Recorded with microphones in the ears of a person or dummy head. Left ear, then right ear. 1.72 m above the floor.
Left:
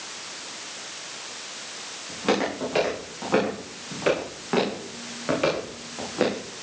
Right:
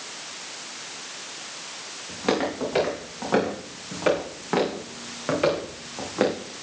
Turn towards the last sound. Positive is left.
turn(degrees=-5)  # may be behind; listen again after turning